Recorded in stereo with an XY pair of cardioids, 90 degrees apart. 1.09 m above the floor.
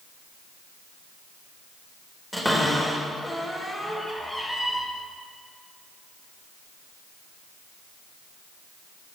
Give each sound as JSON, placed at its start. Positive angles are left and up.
{"t": 2.3, "sound": "a cupboard door", "azimuth_deg": 0, "distance_m": 4.0}